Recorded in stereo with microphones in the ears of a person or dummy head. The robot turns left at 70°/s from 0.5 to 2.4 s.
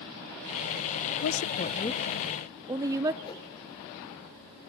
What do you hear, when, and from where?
1.2 s a woman speaking: 70° left (ahead or behind), 0.6 m; by 3.1 s 15° right (ahead or behind), 0.6 m
3.2 s a whoosh: 30° left (ahead or behind), 3.5 m